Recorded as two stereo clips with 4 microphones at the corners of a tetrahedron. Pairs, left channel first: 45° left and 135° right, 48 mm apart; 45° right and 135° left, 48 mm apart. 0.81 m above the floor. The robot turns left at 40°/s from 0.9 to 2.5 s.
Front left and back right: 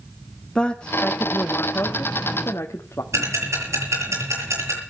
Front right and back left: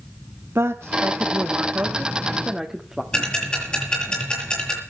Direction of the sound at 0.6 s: 115° left.